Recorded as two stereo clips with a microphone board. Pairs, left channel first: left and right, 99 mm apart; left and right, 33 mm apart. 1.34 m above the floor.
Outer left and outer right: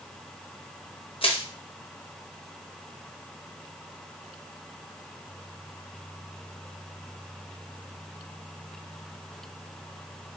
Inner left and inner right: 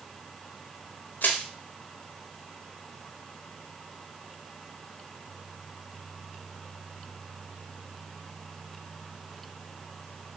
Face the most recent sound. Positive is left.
turn(degrees=65)  # may be behind; listen again after turning